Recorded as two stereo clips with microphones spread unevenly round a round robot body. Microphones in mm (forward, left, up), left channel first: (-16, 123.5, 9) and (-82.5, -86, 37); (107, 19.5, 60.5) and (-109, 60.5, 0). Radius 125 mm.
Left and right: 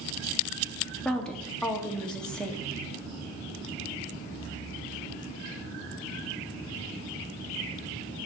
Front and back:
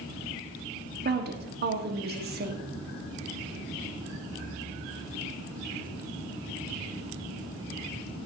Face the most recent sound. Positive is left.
turn(degrees=155)